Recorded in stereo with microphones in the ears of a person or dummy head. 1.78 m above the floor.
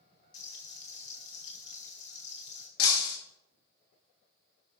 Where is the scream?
I don't hear a scream.